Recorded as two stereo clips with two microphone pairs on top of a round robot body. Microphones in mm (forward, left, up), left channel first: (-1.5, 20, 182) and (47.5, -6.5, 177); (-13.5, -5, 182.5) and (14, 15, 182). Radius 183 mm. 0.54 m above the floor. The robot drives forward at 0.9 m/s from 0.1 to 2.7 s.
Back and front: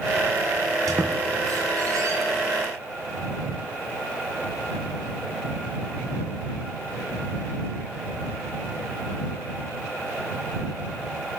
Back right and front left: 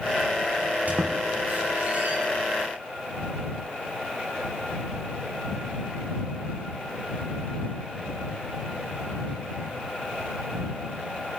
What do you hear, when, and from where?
0.9 s a squeak: 10° right, 3.5 m; by 2.2 s 15° right, 2 m